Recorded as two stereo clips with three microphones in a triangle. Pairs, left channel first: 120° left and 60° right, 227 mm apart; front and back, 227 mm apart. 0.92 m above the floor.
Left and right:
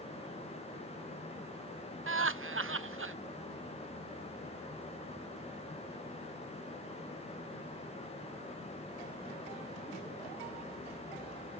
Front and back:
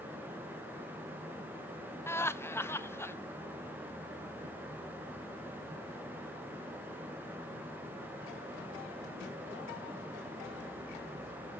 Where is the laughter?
75° right, 0.6 m.